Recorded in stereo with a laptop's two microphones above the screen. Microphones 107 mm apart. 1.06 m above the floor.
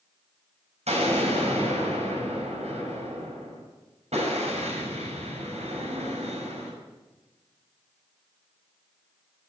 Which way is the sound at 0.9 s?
85° right.